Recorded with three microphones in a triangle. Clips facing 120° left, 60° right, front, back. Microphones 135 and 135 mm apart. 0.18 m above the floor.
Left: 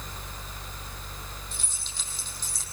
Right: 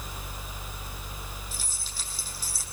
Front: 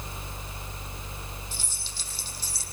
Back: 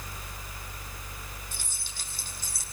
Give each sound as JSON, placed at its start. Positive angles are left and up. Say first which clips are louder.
{"t": 1.5, "sound": "keys jangling", "louder": "right 1 dB, front 2 dB", "azimuth_deg": -145, "distance_m": 5.0}